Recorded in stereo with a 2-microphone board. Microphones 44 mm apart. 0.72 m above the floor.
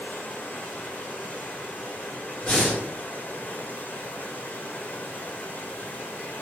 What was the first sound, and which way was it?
Running water, 45° left (ahead or behind).